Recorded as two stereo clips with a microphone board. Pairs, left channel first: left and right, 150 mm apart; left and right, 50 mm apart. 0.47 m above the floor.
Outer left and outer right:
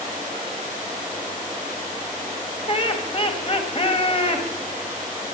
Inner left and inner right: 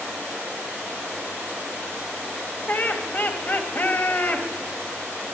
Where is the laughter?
40° left (ahead or behind), 2.5 m.